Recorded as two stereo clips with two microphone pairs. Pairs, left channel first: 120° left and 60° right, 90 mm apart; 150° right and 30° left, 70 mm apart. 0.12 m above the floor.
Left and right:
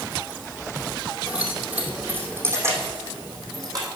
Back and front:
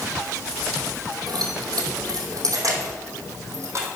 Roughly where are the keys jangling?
Ahead.